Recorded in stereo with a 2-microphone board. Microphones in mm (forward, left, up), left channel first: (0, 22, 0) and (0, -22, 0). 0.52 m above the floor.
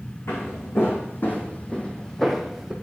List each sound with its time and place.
0.3 s footsteps: 65° left (ahead or behind), 2 m; by 2.7 s 10° right (ahead or behind), 1.6 m